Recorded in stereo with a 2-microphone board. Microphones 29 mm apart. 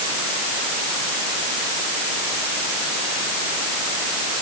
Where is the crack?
I don't hear a crack.